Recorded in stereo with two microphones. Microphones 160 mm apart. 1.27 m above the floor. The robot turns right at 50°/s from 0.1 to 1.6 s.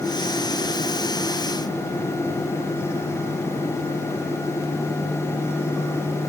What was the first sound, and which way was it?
Only background noise.